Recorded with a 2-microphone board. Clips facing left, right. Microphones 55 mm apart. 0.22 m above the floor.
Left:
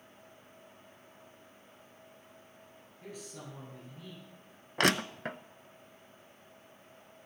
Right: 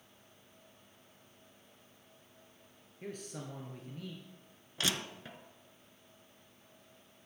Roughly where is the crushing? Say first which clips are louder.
Left 9 dB; left.